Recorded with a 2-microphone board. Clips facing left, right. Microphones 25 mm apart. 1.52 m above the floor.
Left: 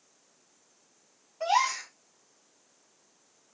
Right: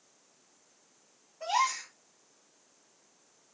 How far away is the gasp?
About 1.6 m.